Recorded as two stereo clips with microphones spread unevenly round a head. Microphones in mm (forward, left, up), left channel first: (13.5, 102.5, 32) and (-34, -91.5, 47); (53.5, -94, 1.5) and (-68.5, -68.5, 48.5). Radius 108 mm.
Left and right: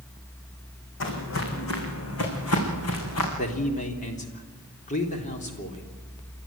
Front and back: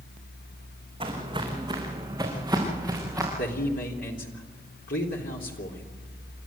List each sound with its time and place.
1.0 s footsteps: 110° left, 4 m; by 3.3 s 85° left, 6 m
3.4 s a man speaking: 20° left, 3.5 m